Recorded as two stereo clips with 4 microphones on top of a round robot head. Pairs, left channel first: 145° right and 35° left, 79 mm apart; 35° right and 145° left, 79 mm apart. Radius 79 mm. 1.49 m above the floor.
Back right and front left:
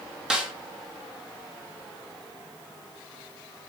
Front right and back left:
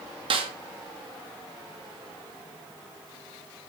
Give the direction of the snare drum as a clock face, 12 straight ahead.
8 o'clock.